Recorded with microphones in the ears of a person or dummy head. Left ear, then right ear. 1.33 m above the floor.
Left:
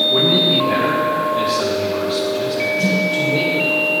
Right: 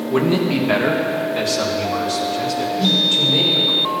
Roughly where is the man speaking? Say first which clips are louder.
Left 5 dB; right.